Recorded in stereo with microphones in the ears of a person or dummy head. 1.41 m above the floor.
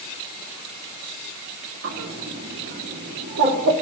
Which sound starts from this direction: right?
A bird, at 1.8 s.